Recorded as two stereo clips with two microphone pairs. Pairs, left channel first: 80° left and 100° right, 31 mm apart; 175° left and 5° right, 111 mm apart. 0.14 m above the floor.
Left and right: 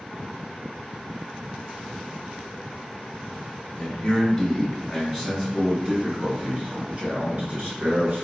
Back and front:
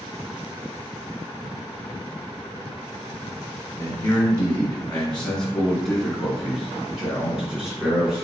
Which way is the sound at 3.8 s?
130° left.